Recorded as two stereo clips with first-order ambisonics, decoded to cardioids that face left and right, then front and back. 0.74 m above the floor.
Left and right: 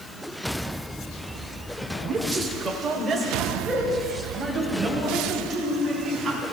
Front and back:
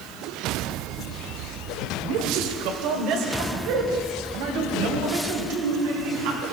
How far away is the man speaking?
About 2 m.